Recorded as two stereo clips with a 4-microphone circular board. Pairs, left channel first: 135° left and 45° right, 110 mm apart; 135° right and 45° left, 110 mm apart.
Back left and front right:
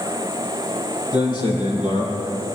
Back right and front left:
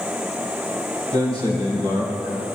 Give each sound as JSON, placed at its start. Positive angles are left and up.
{"t": 1.1, "sound": "a man speaking", "azimuth_deg": 90, "distance_m": 6.0}